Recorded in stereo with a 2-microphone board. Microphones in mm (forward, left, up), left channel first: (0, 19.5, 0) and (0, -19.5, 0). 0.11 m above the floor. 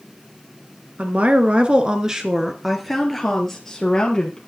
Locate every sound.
1.0 s a woman speaking: 40° right (ahead or behind), 1.5 m; by 4.4 s 15° left (ahead or behind), 2.5 m